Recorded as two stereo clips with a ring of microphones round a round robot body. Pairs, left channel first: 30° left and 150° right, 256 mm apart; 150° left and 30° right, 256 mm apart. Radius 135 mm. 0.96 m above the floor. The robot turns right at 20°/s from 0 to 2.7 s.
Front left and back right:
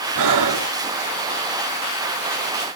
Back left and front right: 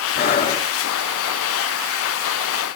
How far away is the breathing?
About 2 m.